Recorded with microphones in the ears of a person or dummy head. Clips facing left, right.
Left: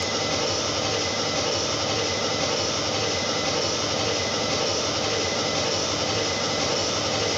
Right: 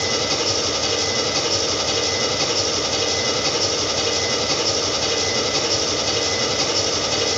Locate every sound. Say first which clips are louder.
0.0 s an engine running: right 3 dB; 65° right (ahead or behind), 2.0 m